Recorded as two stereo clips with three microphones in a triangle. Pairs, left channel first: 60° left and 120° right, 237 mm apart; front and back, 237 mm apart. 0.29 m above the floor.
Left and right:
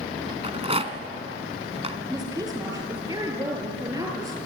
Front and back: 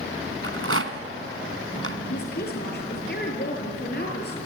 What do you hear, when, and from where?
0.4 s a rattle: straight behind, 1.8 m
2.1 s a woman speaking: 45° right, 6.5 m